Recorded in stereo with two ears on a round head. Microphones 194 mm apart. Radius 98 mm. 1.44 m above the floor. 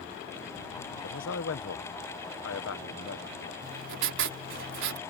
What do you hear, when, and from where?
1.0 s a man speaking: 65° left (ahead or behind)
3.6 s writing: 65° right (ahead or behind)